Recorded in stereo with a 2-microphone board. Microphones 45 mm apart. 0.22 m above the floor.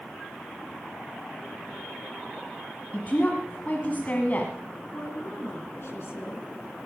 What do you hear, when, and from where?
2.9 s a woman speaking: 40° left (ahead or behind), 1.7 m
4.9 s a woman speaking: 60° left (ahead or behind), 3 m